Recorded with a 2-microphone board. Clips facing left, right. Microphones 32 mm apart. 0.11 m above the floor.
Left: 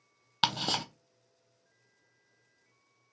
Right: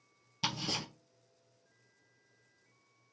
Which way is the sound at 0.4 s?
75° left (ahead or behind).